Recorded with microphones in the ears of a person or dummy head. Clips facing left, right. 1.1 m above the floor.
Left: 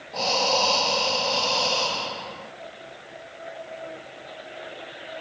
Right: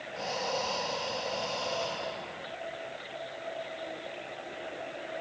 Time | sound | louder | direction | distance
0.1 | breathing | left 9 dB | 80° left | 1.5 m